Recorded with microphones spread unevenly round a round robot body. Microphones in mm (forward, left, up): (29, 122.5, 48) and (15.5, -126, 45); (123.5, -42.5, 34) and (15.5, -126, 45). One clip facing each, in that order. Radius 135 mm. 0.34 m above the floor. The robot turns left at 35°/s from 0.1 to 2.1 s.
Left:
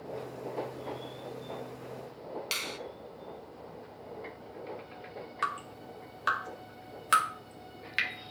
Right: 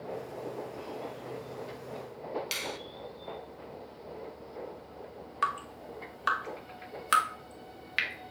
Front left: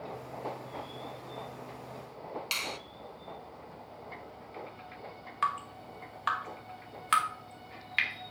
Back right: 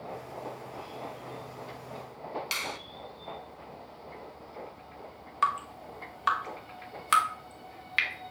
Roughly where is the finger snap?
Ahead.